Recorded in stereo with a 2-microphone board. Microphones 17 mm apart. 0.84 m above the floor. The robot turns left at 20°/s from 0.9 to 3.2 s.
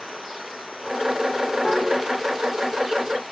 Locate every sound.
1.6 s a piano: 25° left (ahead or behind), 7 m; by 1.9 s 30° left (ahead or behind), 7 m